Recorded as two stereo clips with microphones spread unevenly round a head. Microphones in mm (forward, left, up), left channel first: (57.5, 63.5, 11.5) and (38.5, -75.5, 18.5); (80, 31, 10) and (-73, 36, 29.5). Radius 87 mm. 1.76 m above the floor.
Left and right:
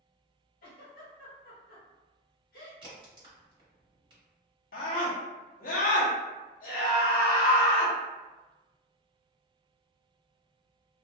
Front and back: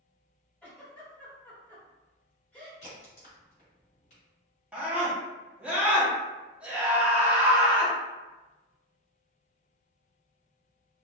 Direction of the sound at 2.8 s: 50° right.